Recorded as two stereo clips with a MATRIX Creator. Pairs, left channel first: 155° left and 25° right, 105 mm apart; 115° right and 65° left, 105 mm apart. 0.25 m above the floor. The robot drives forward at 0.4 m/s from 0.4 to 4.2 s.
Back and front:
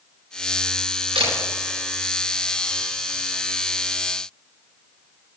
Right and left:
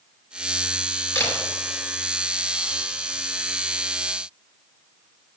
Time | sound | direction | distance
1.1 | a camera shutter | 50° right | 4 m